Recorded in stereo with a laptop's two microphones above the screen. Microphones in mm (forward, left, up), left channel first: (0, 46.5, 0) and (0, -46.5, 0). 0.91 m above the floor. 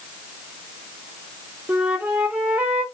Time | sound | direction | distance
1.7 | a flute | 15° right (ahead or behind) | 0.8 m